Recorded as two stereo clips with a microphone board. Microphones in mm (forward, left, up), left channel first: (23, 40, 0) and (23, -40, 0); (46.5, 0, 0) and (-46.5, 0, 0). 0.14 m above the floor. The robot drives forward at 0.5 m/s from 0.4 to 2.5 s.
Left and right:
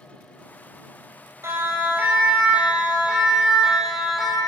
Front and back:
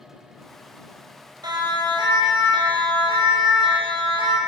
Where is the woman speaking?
I don't hear a woman speaking.